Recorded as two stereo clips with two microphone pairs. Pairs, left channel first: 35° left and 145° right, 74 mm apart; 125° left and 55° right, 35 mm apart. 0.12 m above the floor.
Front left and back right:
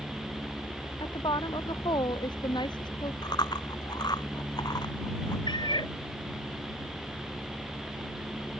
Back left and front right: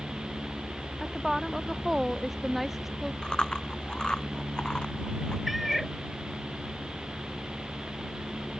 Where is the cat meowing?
35° left.